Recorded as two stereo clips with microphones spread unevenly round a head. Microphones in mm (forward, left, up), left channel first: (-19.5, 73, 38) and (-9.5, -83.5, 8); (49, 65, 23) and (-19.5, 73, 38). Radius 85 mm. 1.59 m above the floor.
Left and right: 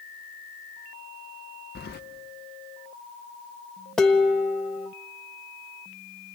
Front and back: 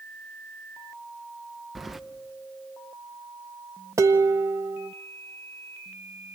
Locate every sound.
1.8 s keys jangling: 95° left, 1.0 m
4.0 s dishes clattering: 170° left, 1.1 m